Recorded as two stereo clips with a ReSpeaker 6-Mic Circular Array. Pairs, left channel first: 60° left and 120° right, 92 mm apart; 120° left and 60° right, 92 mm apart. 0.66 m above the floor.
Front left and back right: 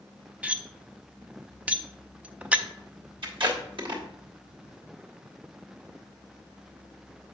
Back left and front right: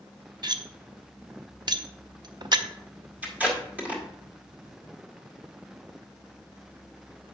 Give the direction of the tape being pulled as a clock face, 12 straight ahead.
4 o'clock.